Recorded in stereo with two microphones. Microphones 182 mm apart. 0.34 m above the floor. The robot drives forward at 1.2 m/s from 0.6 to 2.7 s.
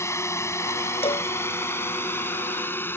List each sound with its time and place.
0.0 s a drone: 15° left (ahead or behind); by 3.0 s 10° left (ahead or behind)
1.0 s a cowbell: 30° left (ahead or behind)